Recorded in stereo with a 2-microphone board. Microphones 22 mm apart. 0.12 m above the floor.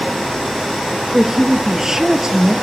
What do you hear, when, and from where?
1.1 s a woman speaking: 25° right (ahead or behind), 2 m